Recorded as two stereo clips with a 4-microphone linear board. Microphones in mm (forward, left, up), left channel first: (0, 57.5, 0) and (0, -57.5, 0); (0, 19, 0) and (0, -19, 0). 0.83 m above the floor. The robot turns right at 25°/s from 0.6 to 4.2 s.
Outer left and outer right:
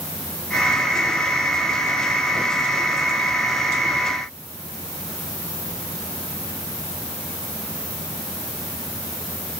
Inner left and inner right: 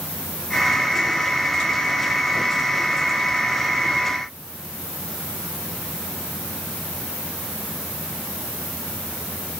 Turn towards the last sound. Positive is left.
No sound to turn to.